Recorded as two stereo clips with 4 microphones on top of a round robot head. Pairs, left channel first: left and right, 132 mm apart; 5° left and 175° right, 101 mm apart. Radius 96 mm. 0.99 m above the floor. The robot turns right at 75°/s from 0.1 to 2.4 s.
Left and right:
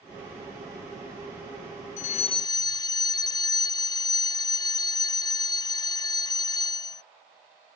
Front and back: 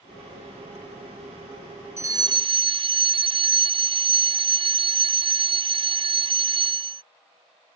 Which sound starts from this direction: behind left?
A fire alarm, at 2.0 s.